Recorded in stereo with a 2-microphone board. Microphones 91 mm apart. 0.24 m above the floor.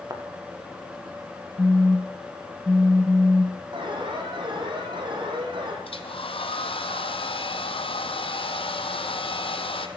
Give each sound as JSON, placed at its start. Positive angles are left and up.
{"t": 0.1, "sound": "a thud", "side_deg": -40, "distance_m": 5.5}
{"t": 1.6, "sound": "a phone buzzing", "side_deg": -5, "distance_m": 1.0}
{"t": 3.7, "sound": "an alarm", "side_deg": -60, "distance_m": 8.0}
{"t": 5.8, "sound": "a hair dryer", "side_deg": 80, "distance_m": 3.0}